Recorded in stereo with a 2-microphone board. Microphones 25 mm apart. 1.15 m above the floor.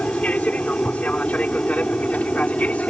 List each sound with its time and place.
0.0 s an aircraft: 65° left (ahead or behind)